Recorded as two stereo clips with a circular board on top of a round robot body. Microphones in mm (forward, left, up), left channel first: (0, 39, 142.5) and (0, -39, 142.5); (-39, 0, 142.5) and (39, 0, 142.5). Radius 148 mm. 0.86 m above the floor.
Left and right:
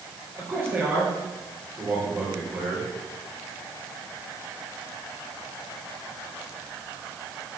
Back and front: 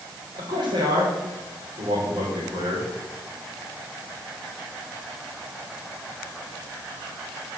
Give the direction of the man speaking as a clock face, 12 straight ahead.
1 o'clock.